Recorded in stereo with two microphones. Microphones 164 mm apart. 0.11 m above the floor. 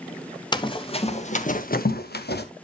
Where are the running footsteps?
25° left (ahead or behind), 1.5 m; by 2.5 s 90° left, 1.1 m.